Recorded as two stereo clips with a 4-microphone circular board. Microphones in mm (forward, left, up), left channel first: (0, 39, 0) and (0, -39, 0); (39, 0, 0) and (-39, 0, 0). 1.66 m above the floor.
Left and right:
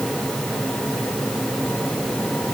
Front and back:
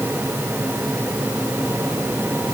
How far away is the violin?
I don't hear a violin.